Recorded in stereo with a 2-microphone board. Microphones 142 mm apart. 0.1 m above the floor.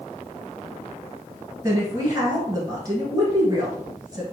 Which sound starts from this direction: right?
A woman speaking, at 1.6 s.